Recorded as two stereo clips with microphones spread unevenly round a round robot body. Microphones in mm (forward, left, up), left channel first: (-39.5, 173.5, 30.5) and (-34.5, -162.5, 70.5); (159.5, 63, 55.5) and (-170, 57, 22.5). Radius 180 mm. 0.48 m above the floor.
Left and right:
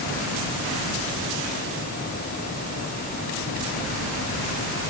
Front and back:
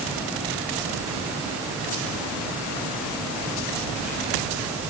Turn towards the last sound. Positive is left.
No sound to turn to.